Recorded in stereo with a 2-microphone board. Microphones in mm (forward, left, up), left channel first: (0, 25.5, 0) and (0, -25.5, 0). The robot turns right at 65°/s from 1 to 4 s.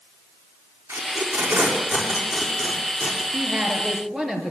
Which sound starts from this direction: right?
Tape being pulled, at 0.9 s.